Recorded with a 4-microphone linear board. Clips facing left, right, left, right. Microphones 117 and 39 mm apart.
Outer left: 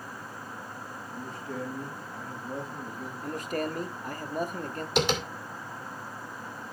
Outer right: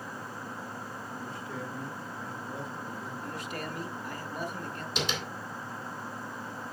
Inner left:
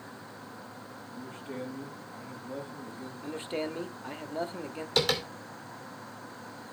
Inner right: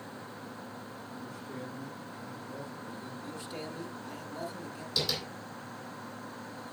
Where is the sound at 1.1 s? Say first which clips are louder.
Outer left 4 dB, inner left 4 dB; 40° left (ahead or behind), 5 m.